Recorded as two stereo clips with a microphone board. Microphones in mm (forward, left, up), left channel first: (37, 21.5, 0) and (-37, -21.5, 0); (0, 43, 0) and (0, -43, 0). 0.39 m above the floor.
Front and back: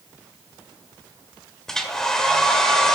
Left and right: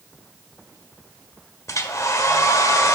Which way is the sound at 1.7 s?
110° left.